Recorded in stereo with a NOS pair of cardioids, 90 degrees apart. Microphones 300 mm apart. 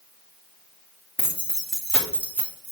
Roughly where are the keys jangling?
Ahead.